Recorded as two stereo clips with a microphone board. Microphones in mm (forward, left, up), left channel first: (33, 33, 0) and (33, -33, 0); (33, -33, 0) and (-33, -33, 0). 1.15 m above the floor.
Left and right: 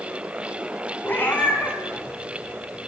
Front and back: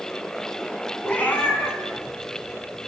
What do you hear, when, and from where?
1.0 s a cat meowing: 60° left, 1.2 m; by 2.9 s 15° left, 2 m